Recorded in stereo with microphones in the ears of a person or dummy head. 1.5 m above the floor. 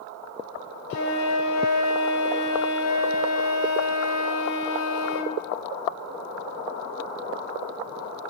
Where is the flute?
60° left (ahead or behind), 2 m.